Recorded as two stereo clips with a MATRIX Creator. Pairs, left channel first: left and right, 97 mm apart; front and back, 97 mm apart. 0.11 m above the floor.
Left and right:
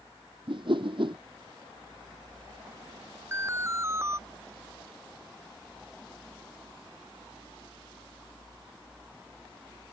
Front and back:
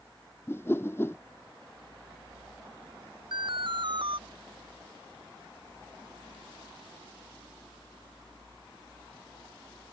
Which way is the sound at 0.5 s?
65° right.